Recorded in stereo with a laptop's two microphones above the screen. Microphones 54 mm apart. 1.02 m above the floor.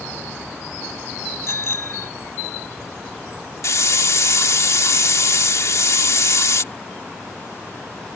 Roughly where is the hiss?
Left.